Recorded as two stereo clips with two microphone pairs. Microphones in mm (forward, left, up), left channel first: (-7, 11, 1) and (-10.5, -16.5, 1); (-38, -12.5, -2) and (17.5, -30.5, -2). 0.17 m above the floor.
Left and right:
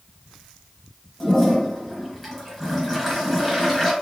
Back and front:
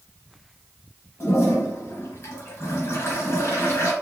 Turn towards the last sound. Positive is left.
turn(degrees=165)